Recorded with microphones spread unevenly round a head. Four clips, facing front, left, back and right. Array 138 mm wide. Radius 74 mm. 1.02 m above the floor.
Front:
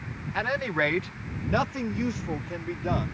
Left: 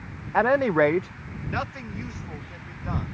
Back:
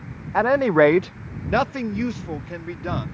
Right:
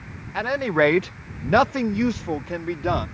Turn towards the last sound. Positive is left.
turn(degrees=-95)